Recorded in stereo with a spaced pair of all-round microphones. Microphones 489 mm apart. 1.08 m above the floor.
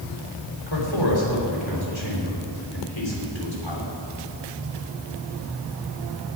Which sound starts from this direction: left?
A man speaking, at 0.7 s.